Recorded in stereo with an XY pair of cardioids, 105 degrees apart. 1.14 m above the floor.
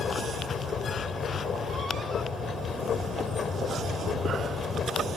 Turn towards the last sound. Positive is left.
turn(degrees=55)